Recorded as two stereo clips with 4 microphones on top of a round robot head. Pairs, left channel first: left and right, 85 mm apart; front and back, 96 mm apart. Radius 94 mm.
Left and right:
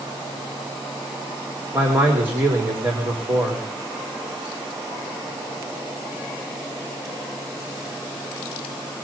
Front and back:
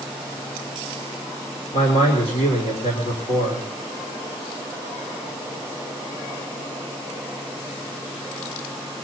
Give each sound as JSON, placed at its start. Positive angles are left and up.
{"t": 1.7, "sound": "a man speaking", "azimuth_deg": -25, "distance_m": 3.5}